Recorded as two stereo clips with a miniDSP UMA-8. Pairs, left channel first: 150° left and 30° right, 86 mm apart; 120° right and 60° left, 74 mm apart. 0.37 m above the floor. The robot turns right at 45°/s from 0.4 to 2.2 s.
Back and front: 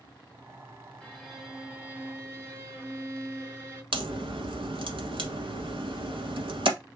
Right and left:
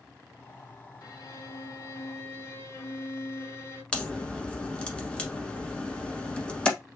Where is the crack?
45° right, 1.1 m.